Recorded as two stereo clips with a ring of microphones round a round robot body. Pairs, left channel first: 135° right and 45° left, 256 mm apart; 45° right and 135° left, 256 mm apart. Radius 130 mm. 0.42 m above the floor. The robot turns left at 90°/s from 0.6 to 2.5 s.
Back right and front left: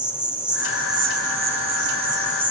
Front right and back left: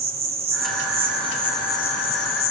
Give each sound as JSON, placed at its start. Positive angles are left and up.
{"t": 0.0, "sound": "an insect", "azimuth_deg": 130, "distance_m": 1.6}